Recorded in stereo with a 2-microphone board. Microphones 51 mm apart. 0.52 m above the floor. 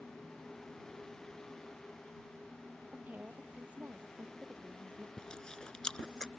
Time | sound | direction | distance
2.9 | a woman speaking | 35° right (ahead or behind) | ?
5.2 | chewing | 10° left (ahead or behind) | ?